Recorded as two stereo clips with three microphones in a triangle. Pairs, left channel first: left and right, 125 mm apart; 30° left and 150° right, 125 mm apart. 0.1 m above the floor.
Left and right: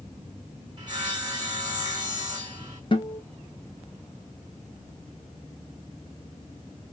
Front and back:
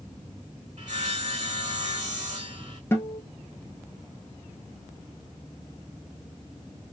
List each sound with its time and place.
0.8 s sawing: 145° right, 2.5 m
2.9 s a guitar: 90° left, 1.1 m